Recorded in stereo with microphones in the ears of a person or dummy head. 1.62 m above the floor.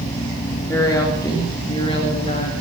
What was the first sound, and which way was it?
A woman speaking, 10° left (ahead or behind).